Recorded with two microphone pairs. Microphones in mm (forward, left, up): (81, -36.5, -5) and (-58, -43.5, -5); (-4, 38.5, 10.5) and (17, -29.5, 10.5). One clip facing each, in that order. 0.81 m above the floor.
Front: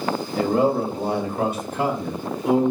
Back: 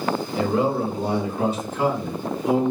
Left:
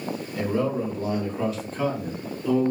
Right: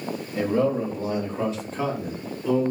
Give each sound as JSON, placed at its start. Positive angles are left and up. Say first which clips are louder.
{"t": 0.3, "sound": "a man speaking", "louder": "front 3 dB, right 3 dB", "azimuth_deg": -10, "distance_m": 1.6}